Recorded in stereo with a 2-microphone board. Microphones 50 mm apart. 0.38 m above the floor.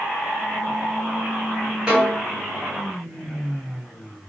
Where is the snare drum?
10° right (ahead or behind), 1.5 m.